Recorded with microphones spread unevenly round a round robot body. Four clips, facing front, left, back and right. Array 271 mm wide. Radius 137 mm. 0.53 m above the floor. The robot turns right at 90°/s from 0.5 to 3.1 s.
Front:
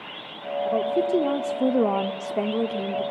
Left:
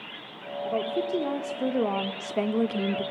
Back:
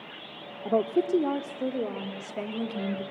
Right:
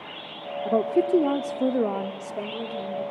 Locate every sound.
0.7 s a woman speaking: 125° right, 1.3 m; by 3.0 s 90° left, 1.3 m